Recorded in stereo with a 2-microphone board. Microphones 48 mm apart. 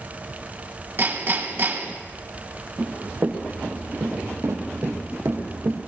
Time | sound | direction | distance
1.0 | hammering | 50° right (ahead or behind) | 2.0 m
2.8 | running footsteps | 40° right (ahead or behind) | 4 m